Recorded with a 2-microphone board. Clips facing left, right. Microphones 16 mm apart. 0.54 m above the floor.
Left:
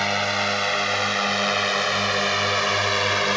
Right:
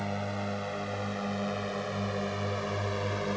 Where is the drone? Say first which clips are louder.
Left 12 dB; 60° left (ahead or behind).